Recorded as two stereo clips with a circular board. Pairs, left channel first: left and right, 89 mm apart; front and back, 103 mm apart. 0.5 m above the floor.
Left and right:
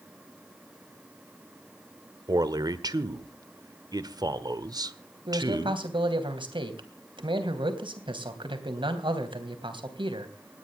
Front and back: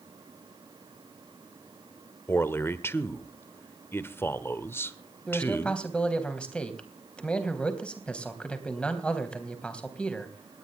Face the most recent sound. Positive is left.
turn(degrees=-80)